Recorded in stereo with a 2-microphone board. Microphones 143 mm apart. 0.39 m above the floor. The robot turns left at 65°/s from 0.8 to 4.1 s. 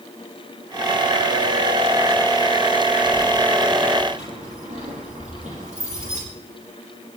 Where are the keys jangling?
10° left (ahead or behind), 8 m; by 6.2 s 60° right (ahead or behind), 8 m.